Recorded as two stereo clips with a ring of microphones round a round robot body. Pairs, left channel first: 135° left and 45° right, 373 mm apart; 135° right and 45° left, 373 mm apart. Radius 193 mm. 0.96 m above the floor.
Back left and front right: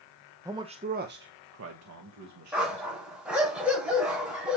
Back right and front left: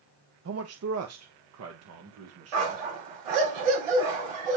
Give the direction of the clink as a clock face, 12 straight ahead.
I don't hear a clink.